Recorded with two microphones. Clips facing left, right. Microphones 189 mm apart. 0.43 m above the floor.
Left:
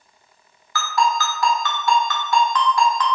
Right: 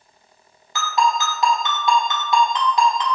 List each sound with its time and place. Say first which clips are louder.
0.8 s a ringtone: even; 20° right (ahead or behind), 0.5 m